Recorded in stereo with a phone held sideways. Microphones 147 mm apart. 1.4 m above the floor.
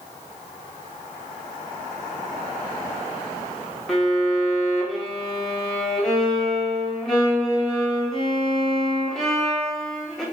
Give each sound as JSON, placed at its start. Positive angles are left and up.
{"t": 3.9, "sound": "a violin", "side_deg": 0, "distance_m": 0.9}